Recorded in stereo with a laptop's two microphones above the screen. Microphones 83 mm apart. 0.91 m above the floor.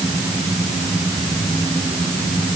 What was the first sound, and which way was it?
Only background noise.